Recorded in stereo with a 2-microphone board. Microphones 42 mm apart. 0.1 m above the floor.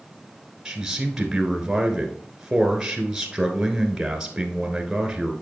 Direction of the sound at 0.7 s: 15° right (ahead or behind).